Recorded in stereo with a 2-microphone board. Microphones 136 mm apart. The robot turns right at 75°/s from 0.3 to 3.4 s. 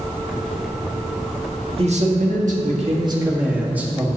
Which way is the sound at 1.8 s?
135° right.